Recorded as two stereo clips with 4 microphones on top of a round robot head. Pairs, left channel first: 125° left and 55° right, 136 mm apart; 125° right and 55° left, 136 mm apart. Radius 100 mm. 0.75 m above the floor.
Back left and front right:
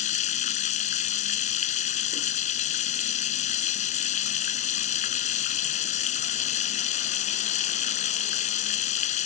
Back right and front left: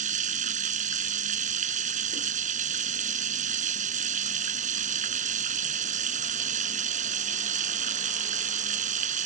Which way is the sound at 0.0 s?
90° left.